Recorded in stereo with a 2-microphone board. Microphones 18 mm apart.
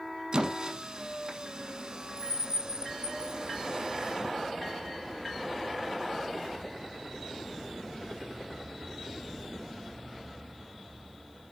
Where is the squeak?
40° right (ahead or behind), 1.0 m.